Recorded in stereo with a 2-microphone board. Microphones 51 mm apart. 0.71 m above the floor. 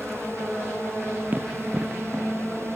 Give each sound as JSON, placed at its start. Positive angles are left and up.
{"t": 1.3, "sound": "running footsteps", "side_deg": -35, "distance_m": 2.0}